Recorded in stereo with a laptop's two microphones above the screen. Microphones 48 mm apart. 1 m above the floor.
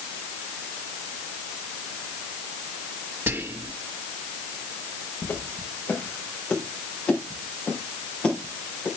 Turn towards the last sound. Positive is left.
turn(degrees=15)  # may be behind; listen again after turning